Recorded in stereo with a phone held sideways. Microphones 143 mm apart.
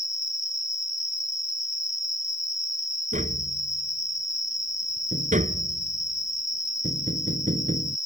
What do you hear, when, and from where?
0.0 s an insect: 55° left (ahead or behind)
3.1 s tapping: 65° right (ahead or behind)